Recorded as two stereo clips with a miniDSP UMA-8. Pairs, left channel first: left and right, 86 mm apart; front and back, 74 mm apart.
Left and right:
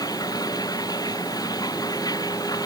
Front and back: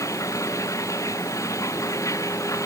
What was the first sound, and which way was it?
Running water, 45° left.